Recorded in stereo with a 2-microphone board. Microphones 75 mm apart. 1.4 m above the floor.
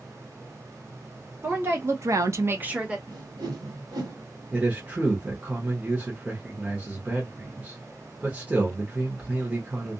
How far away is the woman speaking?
About 1.2 m.